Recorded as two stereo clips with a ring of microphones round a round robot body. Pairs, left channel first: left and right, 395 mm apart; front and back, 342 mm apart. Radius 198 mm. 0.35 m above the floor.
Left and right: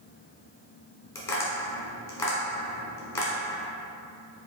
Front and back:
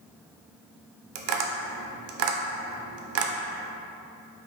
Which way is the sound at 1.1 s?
175° left.